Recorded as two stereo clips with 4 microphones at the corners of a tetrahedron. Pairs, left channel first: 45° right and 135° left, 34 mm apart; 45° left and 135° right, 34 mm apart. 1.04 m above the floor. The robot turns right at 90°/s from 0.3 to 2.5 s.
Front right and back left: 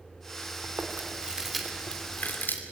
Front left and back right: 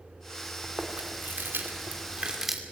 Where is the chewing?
140° left, 2.5 m; by 2.6 s 50° right, 2.5 m.